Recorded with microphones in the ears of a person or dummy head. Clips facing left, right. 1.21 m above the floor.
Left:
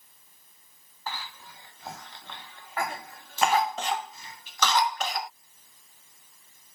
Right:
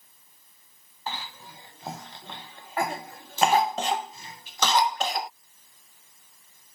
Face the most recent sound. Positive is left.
turn(degrees=-25)  # may be behind; listen again after turning